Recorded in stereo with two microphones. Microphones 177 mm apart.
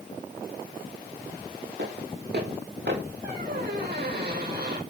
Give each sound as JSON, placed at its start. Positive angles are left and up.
{"t": 1.8, "sound": "footsteps", "side_deg": -80, "distance_m": 7.5}
{"t": 3.2, "sound": "a squeak", "side_deg": -75, "distance_m": 8.0}